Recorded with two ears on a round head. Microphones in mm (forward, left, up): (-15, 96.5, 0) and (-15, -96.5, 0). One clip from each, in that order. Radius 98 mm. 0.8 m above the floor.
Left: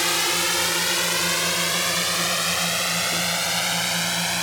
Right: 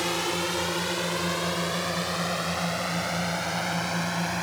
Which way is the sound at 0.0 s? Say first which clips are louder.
Left 6 dB; 60° left (ahead or behind).